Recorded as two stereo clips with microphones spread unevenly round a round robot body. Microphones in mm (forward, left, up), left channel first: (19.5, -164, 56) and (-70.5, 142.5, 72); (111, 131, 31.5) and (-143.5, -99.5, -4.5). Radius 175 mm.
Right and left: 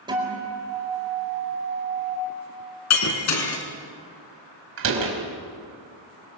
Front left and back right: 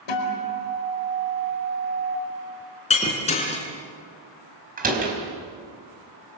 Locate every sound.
0.1 s a guitar: 30° left, 5 m
2.9 s breaking glass: 30° right, 4 m
4.8 s a door slam: 155° left, 4.5 m